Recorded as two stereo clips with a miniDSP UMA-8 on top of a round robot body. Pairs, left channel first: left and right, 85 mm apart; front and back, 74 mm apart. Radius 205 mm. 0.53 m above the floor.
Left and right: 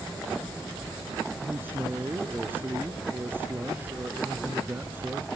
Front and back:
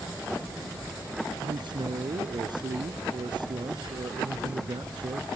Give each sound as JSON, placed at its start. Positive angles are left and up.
{"t": 1.4, "sound": "a man speaking", "azimuth_deg": -160}